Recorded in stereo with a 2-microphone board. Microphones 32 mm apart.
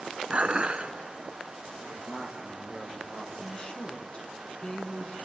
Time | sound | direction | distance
0.3 | dishes clattering | 35° right (ahead or behind) | 1.1 m
1.8 | a man speaking | 40° left (ahead or behind) | 5.5 m
3.4 | a woman speaking | 35° left (ahead or behind) | 1.8 m